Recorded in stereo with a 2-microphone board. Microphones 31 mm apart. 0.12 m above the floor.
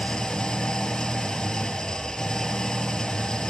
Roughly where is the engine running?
Centre.